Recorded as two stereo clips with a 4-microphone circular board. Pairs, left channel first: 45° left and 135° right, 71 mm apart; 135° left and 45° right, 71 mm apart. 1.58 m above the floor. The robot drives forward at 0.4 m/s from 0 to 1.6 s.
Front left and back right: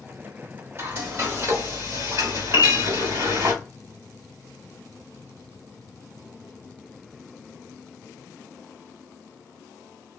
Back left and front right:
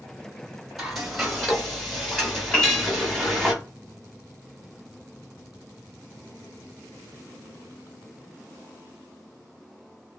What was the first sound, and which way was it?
Frying, 130° right.